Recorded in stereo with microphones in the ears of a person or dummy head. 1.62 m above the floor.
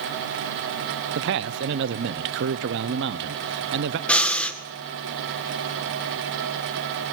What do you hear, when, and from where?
1.1 s a man speaking: 65° right (ahead or behind), 0.6 m
4.1 s breathing: 5° left (ahead or behind), 1.5 m